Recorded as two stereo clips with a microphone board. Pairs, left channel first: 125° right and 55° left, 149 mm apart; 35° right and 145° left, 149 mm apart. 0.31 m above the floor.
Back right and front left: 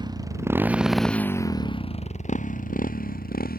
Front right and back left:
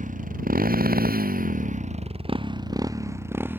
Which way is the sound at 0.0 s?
115° left.